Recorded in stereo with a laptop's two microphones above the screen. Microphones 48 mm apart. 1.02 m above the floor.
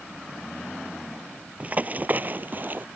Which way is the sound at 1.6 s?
30° right (ahead or behind).